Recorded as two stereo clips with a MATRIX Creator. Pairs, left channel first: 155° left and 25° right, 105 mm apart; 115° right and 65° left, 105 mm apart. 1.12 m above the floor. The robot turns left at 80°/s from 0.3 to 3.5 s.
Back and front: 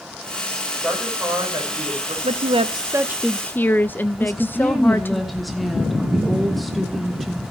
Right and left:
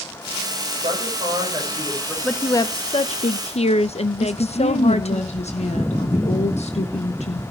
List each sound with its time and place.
0.8 s a woman speaking: 75° left, 5.5 m; by 2.1 s 30° right, 5.5 m
2.2 s a woman speaking: 30° right, 0.7 m; by 5.2 s 130° right, 0.7 m
4.2 s a woman speaking: 115° right, 1.3 m